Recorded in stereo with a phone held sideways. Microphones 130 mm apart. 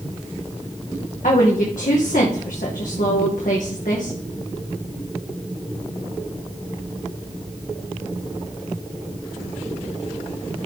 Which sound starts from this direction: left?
A woman speaking, at 1.2 s.